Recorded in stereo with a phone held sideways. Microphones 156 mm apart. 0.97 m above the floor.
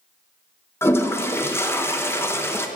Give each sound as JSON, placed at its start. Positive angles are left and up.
{"t": 0.8, "sound": "a toilet flushing", "side_deg": 15, "distance_m": 0.8}